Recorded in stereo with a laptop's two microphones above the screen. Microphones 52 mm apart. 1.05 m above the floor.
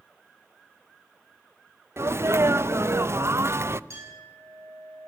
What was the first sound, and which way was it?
A sneeze, 50° right (ahead or behind).